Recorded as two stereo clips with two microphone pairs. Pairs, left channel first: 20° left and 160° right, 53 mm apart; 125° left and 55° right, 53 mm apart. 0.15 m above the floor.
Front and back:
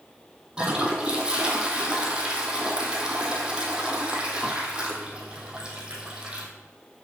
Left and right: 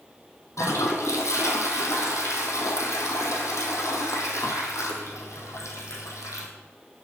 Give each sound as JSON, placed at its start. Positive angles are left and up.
{"t": 0.6, "sound": "a toilet flushing", "azimuth_deg": 130, "distance_m": 1.5}